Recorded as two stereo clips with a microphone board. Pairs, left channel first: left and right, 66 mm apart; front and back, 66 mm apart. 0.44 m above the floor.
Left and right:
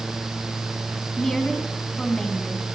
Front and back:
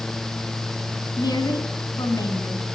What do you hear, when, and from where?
1.2 s a woman speaking: 5° left, 3.5 m